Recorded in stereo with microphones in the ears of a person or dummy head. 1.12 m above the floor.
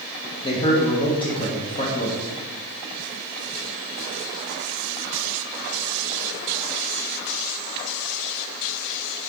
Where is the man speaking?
30° left (ahead or behind), 0.6 m.